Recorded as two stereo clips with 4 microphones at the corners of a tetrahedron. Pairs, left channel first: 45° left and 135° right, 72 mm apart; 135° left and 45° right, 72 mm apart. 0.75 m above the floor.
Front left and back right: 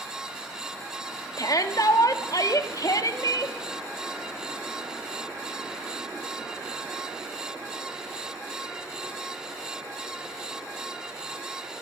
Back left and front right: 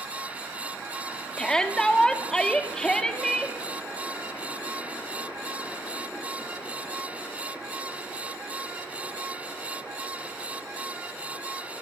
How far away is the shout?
About 1.9 m.